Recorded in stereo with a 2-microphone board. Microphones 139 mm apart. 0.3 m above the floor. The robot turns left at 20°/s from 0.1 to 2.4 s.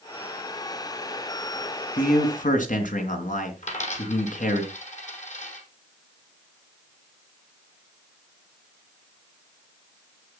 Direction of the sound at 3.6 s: 60° left (ahead or behind).